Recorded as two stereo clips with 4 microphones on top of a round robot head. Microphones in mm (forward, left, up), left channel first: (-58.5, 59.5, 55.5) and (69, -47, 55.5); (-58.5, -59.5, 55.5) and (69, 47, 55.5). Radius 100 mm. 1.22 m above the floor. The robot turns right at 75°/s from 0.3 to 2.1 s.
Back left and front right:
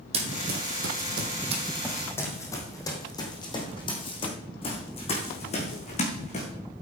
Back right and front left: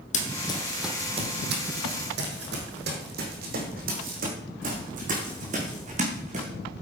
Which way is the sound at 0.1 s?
95° right.